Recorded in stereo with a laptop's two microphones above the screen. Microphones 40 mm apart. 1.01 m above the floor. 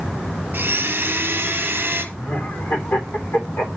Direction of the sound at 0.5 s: 50° right (ahead or behind).